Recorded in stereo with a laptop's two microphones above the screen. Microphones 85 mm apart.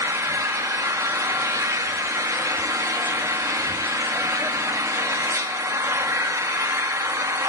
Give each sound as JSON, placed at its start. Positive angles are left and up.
{"t": 0.0, "sound": "an engine running", "side_deg": -35, "distance_m": 0.8}